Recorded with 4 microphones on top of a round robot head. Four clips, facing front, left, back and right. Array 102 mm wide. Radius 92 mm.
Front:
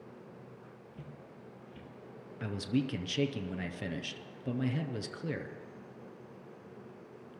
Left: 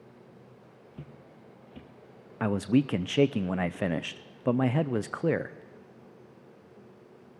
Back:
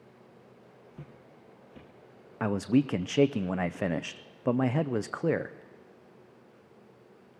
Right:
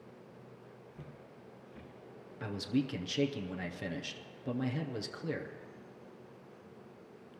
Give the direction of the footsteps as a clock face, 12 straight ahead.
8 o'clock.